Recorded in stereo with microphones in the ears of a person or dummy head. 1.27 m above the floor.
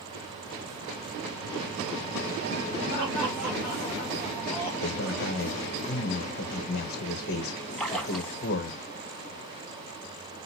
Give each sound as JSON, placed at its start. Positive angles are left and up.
{"t": 2.9, "sound": "laughter", "side_deg": -45, "distance_m": 1.8}
{"t": 4.8, "sound": "a man speaking", "side_deg": 50, "distance_m": 1.0}
{"t": 7.8, "sound": "a splash", "side_deg": 0, "distance_m": 0.9}